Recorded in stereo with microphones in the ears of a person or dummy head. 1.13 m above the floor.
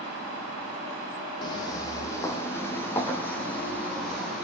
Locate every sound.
1.4 s footsteps: 25° left (ahead or behind), 3 m; by 4.5 s 5° left (ahead or behind), 4 m